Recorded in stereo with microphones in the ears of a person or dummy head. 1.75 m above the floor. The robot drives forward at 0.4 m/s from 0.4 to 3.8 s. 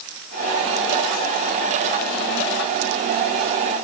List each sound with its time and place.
Only background noise.